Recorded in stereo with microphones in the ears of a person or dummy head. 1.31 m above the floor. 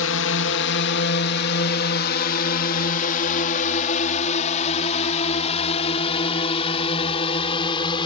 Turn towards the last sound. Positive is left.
turn(degrees=30)  # may be behind; listen again after turning